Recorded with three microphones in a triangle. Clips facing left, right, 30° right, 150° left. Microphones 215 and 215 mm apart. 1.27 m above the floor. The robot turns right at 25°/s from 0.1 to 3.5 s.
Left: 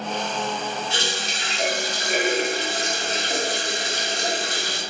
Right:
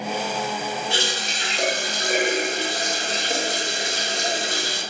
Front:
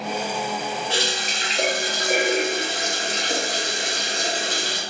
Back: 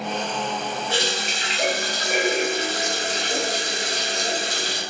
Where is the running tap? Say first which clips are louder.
Right 1 dB, back 1 dB; 90° right, 1.0 m; by 4.8 s 25° right, 1.0 m.